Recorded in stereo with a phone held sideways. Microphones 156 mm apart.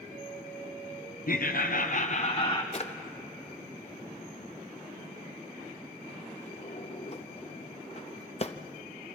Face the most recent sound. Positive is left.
turn(degrees=40)  # may be behind; listen again after turning